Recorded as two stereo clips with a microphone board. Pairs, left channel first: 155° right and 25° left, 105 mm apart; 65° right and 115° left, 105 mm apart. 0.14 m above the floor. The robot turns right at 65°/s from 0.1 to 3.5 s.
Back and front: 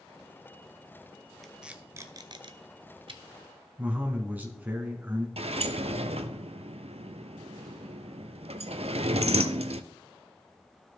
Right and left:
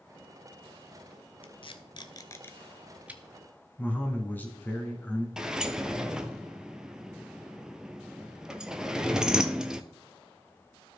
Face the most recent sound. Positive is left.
turn(degrees=30)